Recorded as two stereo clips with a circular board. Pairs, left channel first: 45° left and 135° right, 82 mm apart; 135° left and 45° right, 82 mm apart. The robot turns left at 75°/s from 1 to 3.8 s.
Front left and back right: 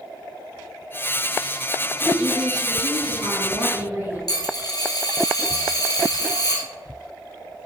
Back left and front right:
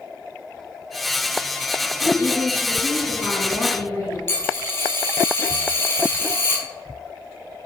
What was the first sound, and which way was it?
A woman speaking, 55° right.